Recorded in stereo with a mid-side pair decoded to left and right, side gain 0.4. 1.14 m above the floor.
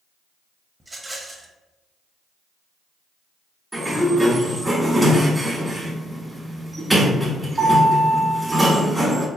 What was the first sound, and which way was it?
A rattle, 20° right.